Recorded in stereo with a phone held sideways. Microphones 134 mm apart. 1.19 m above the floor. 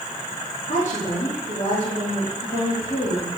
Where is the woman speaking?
65° left (ahead or behind), 2.5 m.